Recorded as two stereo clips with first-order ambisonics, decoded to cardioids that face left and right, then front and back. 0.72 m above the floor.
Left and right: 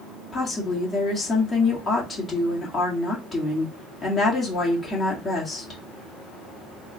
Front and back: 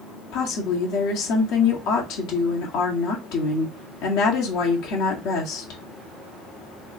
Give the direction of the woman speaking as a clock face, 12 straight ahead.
11 o'clock.